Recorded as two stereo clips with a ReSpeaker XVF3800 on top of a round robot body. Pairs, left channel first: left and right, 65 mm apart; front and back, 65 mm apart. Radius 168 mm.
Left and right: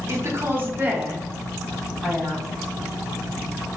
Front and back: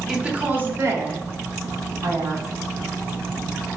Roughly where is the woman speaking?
Right.